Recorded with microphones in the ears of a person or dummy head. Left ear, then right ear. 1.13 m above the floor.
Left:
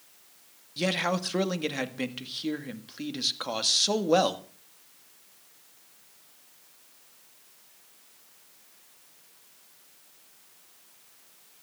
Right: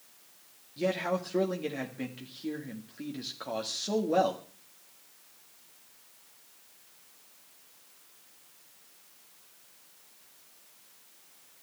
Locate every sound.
0.8 s a man speaking: 45° left (ahead or behind), 1.8 m